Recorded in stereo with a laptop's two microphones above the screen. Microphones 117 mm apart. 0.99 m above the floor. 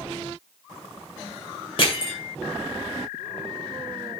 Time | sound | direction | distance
1.8 | crushing | 45° left (ahead or behind) | 2 m